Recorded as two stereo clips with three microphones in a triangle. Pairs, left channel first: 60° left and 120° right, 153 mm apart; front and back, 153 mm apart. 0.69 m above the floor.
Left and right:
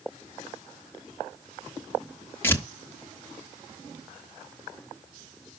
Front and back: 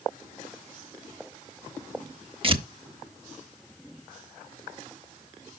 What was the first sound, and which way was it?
Tearing paper, 130° left.